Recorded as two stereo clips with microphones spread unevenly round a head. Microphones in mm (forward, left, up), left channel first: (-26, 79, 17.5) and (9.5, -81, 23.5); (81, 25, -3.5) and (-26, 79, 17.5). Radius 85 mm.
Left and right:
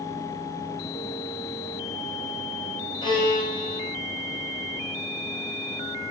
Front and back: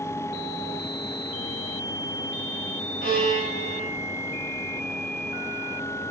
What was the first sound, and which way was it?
A violin, 165° left.